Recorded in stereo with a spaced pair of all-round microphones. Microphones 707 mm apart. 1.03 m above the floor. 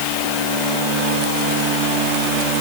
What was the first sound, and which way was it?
Only background noise.